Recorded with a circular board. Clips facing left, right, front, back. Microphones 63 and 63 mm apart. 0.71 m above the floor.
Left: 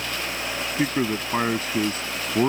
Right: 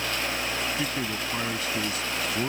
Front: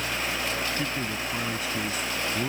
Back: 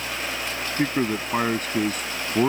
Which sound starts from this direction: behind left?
A man speaking, at 0.8 s.